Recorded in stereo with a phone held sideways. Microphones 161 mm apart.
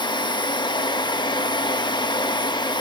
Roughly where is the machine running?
Left.